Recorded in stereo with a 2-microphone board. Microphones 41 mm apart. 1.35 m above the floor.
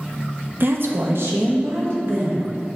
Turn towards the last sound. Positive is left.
turn(degrees=-80)